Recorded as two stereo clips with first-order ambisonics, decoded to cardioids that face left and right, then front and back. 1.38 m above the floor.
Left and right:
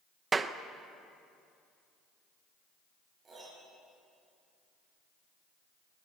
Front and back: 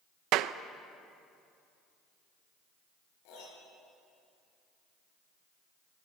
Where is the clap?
160° right, 0.6 m.